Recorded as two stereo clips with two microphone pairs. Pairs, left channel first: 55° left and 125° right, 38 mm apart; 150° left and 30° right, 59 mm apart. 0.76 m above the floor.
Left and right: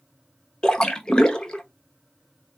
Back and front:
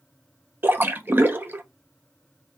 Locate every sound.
0.6 s a splash: 5° left, 0.7 m